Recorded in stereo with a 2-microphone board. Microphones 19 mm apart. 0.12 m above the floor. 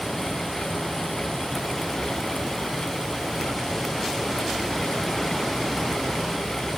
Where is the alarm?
I don't hear an alarm.